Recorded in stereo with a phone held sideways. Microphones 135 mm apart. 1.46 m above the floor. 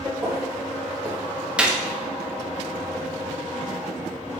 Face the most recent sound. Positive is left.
turn(degrees=-5)  # may be behind; listen again after turning